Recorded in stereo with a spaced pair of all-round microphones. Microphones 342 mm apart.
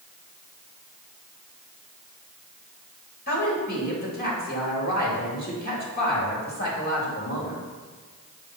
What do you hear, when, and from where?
3.3 s a woman speaking: 25° left (ahead or behind), 2.5 m